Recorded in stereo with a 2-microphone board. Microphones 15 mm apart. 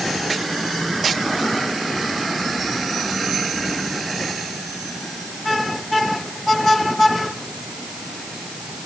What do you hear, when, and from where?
Only background noise.